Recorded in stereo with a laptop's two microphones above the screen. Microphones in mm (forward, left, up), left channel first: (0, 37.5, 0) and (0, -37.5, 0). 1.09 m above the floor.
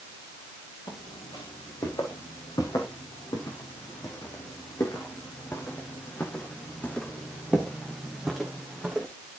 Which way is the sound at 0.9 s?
75° left (ahead or behind).